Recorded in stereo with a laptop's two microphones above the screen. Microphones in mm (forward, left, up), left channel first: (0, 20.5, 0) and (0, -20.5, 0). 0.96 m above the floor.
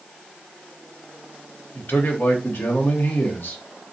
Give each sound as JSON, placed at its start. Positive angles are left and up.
{"t": 1.8, "sound": "a man speaking", "side_deg": 65, "distance_m": 0.9}